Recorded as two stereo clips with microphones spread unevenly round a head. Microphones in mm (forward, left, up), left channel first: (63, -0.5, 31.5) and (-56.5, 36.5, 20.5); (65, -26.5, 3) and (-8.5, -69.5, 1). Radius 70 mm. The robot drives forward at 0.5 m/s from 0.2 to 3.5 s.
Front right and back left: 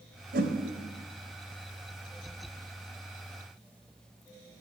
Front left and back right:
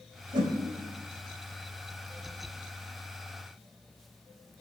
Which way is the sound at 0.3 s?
175° right.